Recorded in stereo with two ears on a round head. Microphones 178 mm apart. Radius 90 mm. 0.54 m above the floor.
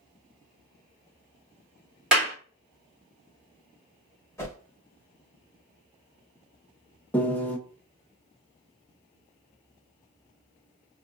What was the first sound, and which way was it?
A clap, 5° right (ahead or behind).